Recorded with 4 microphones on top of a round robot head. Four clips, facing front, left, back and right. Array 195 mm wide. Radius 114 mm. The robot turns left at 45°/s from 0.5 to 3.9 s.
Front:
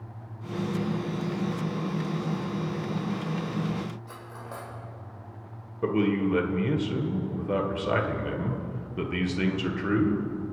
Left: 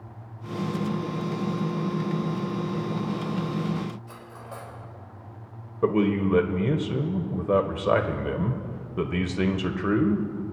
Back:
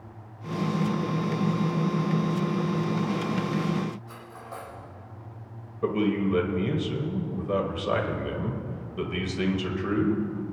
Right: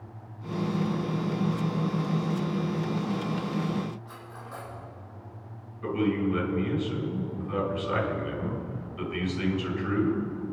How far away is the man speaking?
About 1.5 m.